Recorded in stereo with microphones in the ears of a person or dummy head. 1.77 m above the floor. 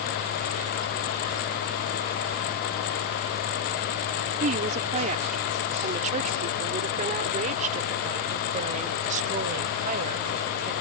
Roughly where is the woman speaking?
Right.